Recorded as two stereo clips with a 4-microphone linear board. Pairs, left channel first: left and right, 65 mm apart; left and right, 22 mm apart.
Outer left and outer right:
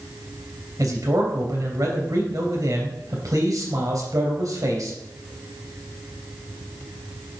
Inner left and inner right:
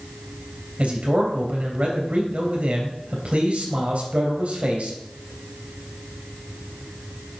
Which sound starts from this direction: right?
A man speaking, at 0.8 s.